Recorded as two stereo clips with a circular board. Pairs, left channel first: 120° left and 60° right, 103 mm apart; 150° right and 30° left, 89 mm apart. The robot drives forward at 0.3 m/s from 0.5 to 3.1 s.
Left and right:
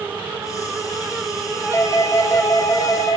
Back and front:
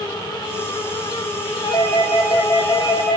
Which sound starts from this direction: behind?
A doorbell, at 1.6 s.